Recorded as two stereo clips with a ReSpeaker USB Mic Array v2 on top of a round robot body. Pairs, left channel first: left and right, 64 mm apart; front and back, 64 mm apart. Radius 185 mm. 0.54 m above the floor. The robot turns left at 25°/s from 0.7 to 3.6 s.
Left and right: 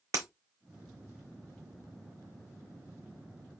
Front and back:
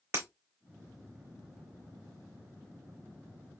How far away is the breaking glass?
About 0.8 m.